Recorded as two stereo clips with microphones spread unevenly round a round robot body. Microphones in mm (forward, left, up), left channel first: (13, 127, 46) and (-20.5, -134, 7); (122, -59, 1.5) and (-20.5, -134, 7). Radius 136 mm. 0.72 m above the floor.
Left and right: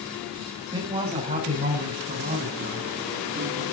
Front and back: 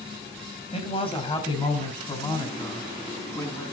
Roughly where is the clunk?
I don't hear a clunk.